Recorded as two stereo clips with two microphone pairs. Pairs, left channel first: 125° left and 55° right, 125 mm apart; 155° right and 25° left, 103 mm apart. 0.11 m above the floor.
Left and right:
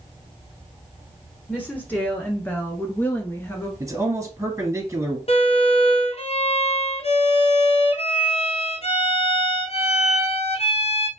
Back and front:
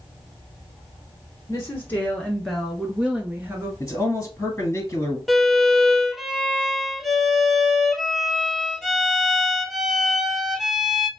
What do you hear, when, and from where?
1.5 s a woman speaking: 170° right, 1.3 m; by 3.7 s 65° left, 1.4 m
3.8 s a man speaking: 105° right, 1.3 m
5.3 s a violin: 110° left, 0.9 m